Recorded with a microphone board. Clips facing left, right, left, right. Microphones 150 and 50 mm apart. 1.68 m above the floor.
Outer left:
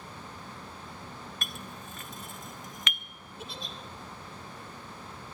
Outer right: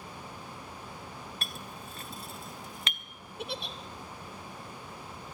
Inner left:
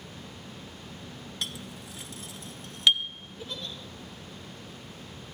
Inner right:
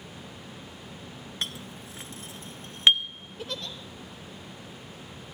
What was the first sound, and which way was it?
A clink, 35° right (ahead or behind).